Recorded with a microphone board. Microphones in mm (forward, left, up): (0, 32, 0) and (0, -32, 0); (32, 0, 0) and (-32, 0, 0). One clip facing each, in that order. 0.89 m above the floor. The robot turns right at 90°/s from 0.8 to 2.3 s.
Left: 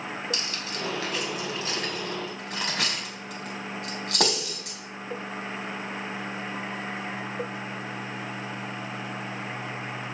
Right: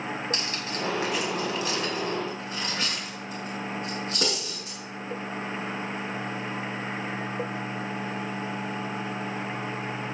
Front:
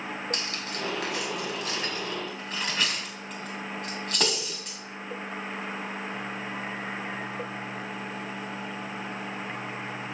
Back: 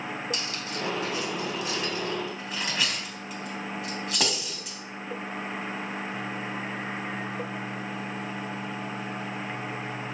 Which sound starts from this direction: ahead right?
Cutlery clinking, at 0.3 s.